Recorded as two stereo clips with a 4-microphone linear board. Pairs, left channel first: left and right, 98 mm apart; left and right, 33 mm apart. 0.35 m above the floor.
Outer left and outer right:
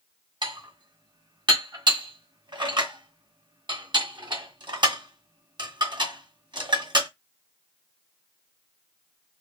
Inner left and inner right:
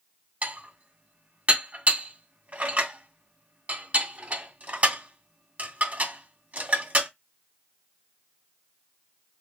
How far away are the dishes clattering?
About 1.9 m.